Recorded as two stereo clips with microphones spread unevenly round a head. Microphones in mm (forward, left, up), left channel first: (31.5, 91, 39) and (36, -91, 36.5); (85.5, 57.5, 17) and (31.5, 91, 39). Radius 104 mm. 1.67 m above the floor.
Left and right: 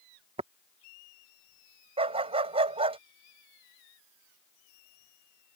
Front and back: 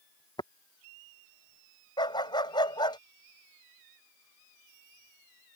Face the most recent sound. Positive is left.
turn(degrees=-30)